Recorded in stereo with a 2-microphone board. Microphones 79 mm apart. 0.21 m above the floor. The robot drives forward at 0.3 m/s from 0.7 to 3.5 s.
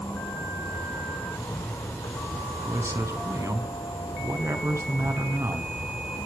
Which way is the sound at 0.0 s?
80° left.